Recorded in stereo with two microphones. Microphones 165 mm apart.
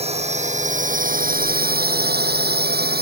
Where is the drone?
40° right (ahead or behind); by 3.0 s 70° right (ahead or behind).